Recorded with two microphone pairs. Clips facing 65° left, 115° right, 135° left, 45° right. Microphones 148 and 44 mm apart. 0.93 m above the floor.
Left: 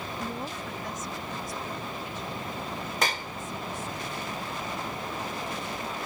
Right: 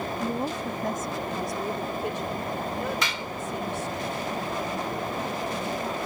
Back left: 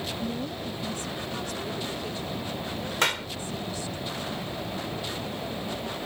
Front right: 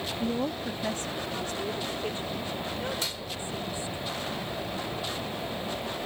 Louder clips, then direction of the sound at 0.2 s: Right 7 dB, front right 3 dB; 50° right.